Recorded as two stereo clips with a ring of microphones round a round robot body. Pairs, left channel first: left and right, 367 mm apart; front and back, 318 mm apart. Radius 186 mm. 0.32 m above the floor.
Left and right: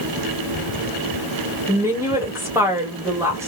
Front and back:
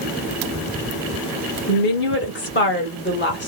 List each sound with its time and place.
1.7 s a woman speaking: 10° right, 1.2 m